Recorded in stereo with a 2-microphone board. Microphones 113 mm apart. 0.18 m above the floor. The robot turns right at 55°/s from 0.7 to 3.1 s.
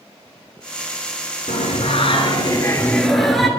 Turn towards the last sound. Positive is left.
turn(degrees=180)